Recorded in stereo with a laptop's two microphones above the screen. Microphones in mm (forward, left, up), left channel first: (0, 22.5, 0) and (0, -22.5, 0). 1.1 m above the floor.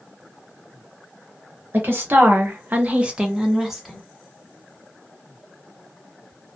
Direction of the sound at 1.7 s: 50° right (ahead or behind).